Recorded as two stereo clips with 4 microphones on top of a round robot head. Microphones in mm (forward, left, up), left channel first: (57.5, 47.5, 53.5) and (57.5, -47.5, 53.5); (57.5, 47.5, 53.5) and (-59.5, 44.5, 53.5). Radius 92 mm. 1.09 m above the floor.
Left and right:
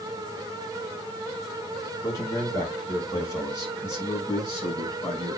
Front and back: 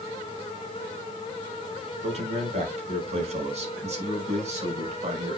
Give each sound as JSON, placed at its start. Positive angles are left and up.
{"t": 2.0, "sound": "a man speaking", "azimuth_deg": 150, "distance_m": 4.5}